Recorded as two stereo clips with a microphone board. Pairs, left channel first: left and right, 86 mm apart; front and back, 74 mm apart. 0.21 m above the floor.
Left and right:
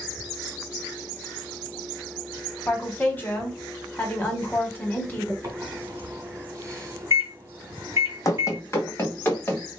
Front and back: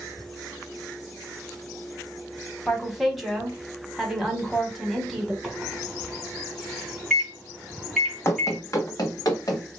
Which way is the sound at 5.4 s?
85° right.